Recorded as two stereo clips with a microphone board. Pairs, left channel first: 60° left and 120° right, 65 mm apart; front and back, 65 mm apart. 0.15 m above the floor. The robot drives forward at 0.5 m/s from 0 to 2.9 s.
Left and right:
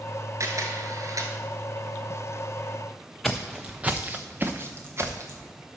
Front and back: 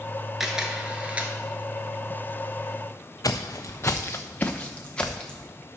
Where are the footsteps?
30° right, 0.8 m; by 5.5 s 80° right, 1.6 m.